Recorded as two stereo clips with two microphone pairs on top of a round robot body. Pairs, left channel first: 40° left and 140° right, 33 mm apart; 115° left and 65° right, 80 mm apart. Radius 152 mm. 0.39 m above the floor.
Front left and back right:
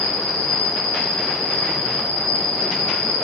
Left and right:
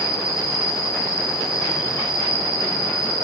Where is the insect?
75° left, 2.5 m.